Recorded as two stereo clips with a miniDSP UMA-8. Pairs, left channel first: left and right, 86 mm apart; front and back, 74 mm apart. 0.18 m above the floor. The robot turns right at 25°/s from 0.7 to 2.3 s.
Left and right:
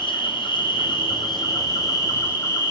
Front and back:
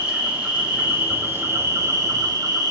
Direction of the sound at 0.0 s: 100° left.